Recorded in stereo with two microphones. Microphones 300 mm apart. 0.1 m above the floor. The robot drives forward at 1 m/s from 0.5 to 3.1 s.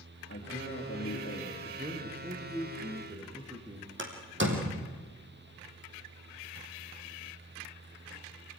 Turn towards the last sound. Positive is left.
turn(degrees=-40)  # may be behind; listen again after turning